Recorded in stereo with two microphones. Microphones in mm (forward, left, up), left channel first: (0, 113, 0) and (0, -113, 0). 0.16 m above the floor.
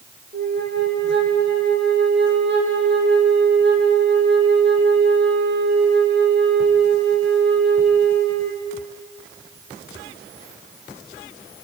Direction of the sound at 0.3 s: 50° right (ahead or behind).